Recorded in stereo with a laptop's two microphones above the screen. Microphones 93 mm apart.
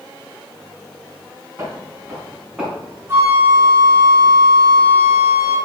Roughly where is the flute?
Right.